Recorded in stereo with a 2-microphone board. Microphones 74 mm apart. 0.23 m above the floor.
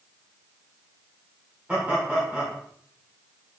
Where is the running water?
I don't hear running water.